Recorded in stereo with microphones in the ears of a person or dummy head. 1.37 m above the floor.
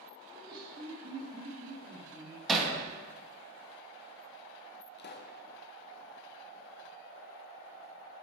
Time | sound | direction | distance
0.3 | laughter | 25° right (ahead or behind) | 1.8 m
2.5 | hammering | 5° left (ahead or behind) | 1.2 m
5.0 | a pop | 35° left (ahead or behind) | 0.5 m